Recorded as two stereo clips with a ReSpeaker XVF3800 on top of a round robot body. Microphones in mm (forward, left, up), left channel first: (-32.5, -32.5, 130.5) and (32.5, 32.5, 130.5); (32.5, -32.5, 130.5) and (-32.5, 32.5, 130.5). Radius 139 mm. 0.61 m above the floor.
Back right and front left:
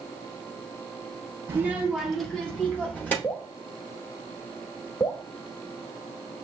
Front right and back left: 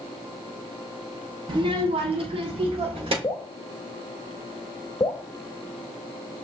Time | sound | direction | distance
1.5 | a child speaking | 105° left | 0.8 m
3.2 | dripping | 75° right | 0.9 m